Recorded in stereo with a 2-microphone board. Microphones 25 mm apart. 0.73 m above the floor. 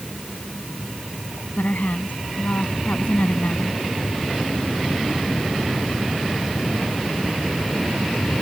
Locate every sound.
1.6 s a woman speaking: 85° left